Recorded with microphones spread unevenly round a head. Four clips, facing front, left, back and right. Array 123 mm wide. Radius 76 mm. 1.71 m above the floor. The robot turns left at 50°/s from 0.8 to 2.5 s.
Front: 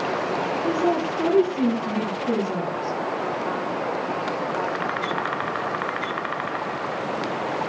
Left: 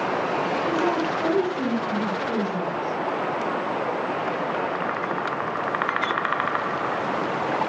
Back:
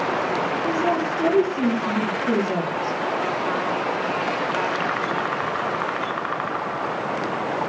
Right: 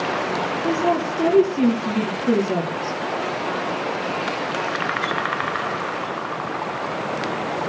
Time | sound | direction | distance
0.6 | a woman speaking | 20° right | 4.5 m